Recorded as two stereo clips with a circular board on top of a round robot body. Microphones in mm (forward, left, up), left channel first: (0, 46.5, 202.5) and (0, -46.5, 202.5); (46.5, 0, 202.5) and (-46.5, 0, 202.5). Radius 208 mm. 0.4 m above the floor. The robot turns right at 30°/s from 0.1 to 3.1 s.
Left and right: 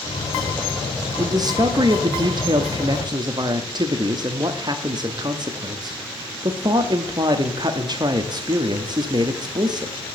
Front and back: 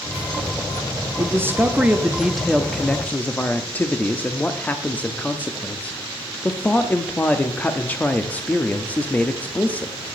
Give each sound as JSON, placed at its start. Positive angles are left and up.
{"t": 1.2, "sound": "a man speaking", "azimuth_deg": -125, "distance_m": 1.0}